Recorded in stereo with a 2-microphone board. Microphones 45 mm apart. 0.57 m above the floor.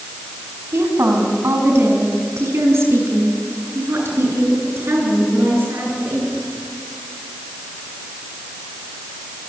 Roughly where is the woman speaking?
Right.